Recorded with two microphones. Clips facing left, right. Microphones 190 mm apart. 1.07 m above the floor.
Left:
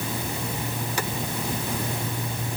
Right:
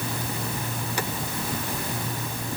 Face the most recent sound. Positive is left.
No sound to turn to.